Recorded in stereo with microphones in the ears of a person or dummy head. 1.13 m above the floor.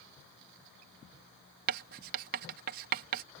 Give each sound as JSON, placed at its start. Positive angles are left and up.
{"t": 1.7, "sound": "writing", "side_deg": -50}